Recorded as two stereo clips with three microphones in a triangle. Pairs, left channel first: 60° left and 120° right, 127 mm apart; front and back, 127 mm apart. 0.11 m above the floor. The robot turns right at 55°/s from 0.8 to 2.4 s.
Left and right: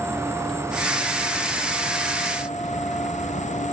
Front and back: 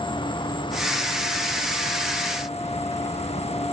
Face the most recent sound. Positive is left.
turn(degrees=40)